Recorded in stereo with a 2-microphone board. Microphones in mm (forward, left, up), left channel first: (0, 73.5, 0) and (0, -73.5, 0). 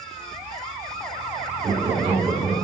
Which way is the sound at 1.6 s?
25° right (ahead or behind).